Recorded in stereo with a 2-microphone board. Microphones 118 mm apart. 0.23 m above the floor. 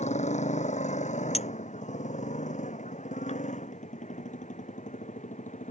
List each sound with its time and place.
0.0 s a motorcycle: 75° left (ahead or behind); by 5.7 s 85° left
1.3 s a clink: 65° left (ahead or behind)